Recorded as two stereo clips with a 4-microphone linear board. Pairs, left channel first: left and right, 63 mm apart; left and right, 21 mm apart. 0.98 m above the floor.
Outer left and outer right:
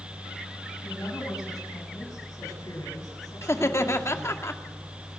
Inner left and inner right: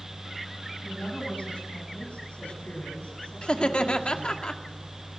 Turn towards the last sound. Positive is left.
turn(degrees=45)  # may be behind; listen again after turning